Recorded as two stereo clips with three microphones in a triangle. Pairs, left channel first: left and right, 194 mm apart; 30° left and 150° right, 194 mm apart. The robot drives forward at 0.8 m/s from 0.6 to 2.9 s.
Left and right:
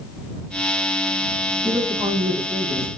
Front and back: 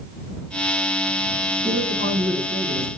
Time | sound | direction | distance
1.6 | a man speaking | 175° right | 4 m